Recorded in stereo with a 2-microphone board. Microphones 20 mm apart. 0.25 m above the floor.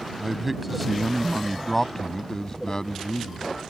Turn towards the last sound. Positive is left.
turn(degrees=50)  # may be behind; listen again after turning